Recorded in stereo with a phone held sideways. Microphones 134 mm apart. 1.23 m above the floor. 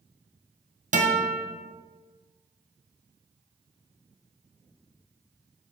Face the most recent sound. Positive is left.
turn(degrees=-65)  # may be behind; listen again after turning